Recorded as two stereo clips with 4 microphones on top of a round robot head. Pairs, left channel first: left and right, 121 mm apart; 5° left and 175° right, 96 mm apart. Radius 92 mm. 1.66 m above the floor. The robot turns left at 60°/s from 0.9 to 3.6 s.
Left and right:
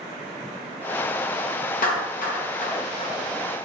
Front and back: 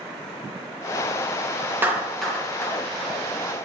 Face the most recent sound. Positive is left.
turn(degrees=10)